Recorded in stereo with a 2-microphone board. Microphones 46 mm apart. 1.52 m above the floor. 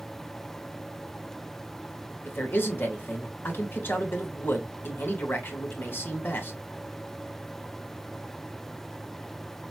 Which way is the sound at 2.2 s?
50° left (ahead or behind).